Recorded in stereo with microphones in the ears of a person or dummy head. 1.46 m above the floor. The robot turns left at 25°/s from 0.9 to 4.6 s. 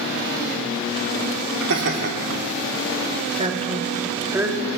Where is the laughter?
70° right (ahead or behind), 3 m; by 2.1 s 60° right (ahead or behind), 3 m.